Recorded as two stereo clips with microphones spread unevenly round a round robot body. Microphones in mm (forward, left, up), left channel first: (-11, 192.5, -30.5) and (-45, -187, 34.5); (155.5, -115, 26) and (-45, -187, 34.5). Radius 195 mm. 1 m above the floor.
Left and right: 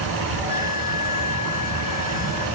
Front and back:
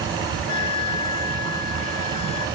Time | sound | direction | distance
0.5 | a flute | 5° left | 7.5 m